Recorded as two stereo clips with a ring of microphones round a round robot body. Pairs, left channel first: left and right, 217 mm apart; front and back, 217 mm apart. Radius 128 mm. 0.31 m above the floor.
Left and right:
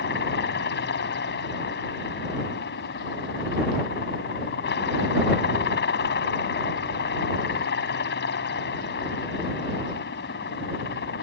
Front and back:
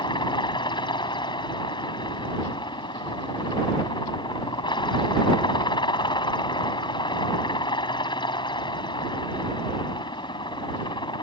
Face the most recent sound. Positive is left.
turn(degrees=65)